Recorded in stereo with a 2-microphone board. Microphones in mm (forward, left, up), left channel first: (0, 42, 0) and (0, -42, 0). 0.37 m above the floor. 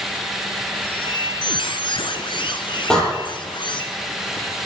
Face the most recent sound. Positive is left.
turn(degrees=5)  # may be behind; listen again after turning